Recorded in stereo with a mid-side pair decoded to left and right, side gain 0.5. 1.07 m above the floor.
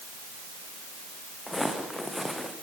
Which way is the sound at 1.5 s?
10° left.